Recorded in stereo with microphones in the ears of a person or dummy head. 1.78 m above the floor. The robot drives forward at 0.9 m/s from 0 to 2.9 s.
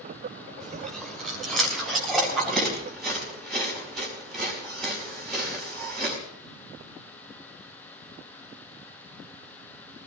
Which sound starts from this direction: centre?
Chewing, at 0.6 s.